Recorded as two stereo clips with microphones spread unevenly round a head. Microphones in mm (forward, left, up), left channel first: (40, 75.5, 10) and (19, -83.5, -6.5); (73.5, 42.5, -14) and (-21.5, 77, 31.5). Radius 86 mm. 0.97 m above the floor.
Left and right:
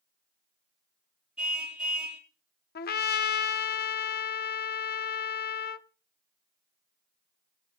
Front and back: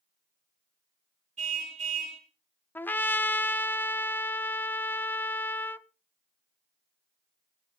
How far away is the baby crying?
I don't hear a baby crying.